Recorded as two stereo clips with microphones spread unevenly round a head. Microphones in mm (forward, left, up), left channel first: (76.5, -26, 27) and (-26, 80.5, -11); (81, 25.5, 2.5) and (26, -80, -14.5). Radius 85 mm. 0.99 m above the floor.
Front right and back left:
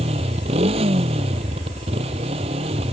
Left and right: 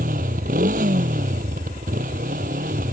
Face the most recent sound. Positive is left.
turn(degrees=-165)